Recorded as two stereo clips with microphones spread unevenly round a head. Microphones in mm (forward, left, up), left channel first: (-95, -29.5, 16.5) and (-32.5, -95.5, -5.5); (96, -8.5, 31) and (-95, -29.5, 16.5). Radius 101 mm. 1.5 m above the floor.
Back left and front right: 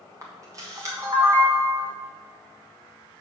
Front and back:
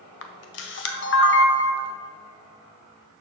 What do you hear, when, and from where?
0.2 s a camera shutter: 30° left, 0.7 m